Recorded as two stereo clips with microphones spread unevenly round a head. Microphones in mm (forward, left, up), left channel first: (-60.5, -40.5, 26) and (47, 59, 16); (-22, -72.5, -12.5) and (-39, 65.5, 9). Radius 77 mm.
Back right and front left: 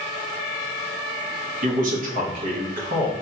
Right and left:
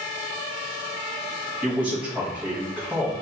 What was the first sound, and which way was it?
A man speaking, 10° left.